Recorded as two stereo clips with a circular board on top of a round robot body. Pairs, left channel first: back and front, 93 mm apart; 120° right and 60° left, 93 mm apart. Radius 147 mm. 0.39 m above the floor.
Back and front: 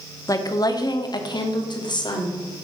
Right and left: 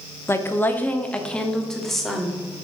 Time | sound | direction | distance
0.3 | a woman speaking | 165° right | 0.9 m